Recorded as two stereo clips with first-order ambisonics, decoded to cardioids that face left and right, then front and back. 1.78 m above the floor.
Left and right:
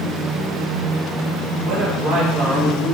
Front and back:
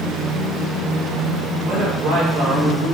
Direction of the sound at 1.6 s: 130° right.